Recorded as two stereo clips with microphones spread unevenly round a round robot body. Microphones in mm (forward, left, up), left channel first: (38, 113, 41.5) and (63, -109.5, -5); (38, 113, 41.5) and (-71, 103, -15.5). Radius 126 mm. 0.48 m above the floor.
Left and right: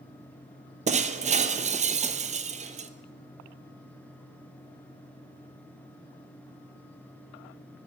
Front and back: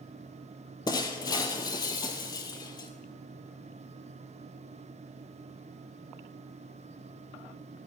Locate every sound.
0.9 s breaking glass: 20° right, 0.8 m